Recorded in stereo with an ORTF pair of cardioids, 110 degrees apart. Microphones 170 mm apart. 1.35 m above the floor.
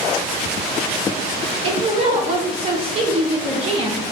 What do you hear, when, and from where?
1.6 s a woman speaking: 35° right, 0.5 m